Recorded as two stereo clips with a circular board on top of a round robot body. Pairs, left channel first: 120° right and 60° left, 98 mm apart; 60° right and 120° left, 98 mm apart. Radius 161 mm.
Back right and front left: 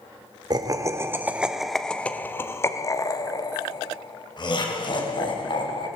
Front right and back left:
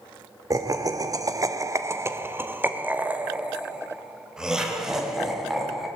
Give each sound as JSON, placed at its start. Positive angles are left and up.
{"t": 0.5, "sound": "laughter", "azimuth_deg": 85, "distance_m": 1.9}